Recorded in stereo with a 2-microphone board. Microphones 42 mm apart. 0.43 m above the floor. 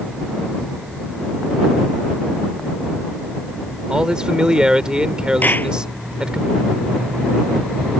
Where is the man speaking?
20° right (ahead or behind).